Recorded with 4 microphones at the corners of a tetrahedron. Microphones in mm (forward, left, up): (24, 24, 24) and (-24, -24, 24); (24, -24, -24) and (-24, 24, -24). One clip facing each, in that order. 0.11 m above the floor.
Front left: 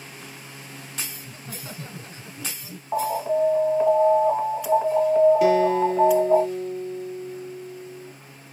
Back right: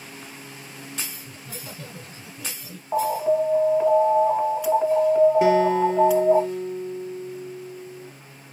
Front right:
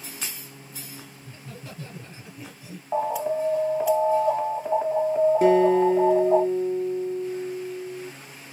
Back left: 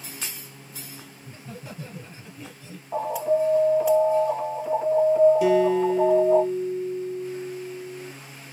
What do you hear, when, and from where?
1.2 s laughter: 85° left, 1.4 m; by 2.8 s 15° left, 1.2 m
2.9 s an alarm: 55° right, 2 m
5.4 s a guitar: 80° right, 0.9 m